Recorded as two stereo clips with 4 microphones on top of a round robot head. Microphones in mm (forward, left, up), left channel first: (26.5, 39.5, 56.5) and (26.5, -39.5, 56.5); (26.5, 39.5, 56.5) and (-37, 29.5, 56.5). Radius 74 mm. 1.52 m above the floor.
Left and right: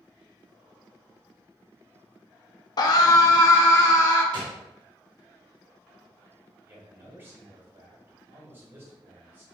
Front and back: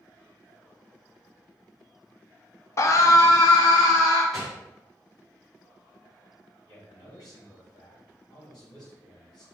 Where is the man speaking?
25° right, 2 m.